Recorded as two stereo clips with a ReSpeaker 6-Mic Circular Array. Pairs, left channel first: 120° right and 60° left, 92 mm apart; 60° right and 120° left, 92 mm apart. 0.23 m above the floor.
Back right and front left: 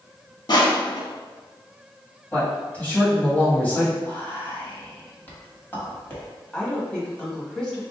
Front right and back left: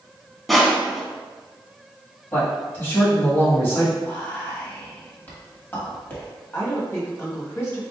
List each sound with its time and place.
0.5 s crushing: 150° right, 0.7 m
2.3 s a man speaking: 65° right, 1.5 m
4.0 s whispering: 85° right, 1.3 m
6.5 s a woman speaking: 50° right, 1.2 m